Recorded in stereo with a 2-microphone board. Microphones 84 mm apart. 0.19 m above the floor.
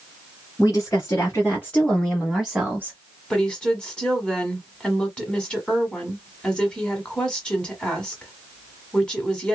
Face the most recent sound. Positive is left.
turn(degrees=10)  # may be behind; listen again after turning